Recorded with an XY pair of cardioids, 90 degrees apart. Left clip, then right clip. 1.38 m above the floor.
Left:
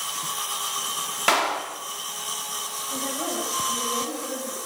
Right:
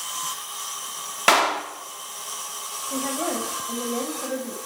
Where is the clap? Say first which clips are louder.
Right 4 dB; 35° right, 2.5 m.